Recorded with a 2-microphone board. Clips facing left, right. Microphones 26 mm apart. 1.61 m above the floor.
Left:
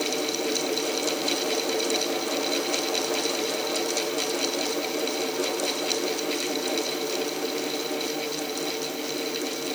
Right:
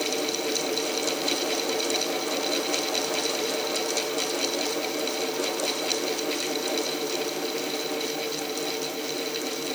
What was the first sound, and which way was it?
Only background noise.